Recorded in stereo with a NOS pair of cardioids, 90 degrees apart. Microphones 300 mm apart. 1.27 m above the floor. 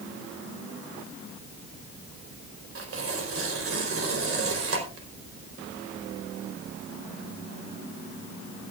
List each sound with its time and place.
2.8 s tearing paper: 45° right, 4 m